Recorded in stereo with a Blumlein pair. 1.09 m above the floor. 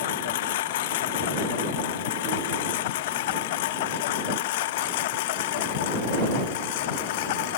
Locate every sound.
0.0 s a lawn mower: 55° left; by 7.6 s 50° left